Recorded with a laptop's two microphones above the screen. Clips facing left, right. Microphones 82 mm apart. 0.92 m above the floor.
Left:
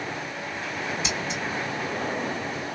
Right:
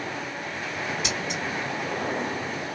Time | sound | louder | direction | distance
1.0 | scissors | even | 60° right (ahead or behind) | 2.5 m